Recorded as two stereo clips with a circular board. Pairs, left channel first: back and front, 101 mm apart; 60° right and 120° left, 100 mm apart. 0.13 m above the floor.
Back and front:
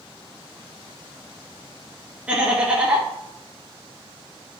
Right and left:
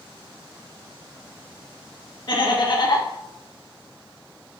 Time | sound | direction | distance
2.3 | laughter | 70° right | 1.6 m